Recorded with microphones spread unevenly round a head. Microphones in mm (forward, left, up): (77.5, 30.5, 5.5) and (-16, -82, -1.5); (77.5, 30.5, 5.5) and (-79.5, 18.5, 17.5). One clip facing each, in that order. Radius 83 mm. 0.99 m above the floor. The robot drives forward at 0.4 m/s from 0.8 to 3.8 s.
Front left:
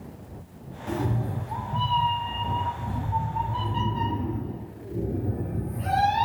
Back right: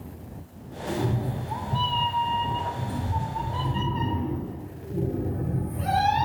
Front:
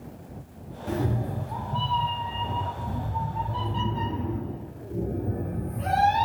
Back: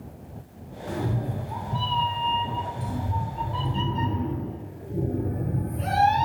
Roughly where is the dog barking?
I don't hear a dog barking.